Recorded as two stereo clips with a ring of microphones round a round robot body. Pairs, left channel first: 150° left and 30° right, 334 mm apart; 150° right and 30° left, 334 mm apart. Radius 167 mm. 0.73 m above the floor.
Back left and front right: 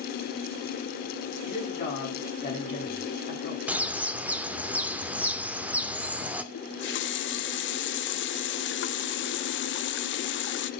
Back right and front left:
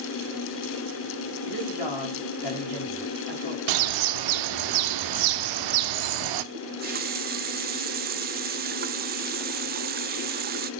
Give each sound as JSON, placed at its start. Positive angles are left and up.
{"t": 1.4, "sound": "a woman speaking", "azimuth_deg": -140, "distance_m": 5.0}
{"t": 3.7, "sound": "a bird", "azimuth_deg": 55, "distance_m": 1.0}
{"t": 6.5, "sound": "a running tap", "azimuth_deg": 95, "distance_m": 0.7}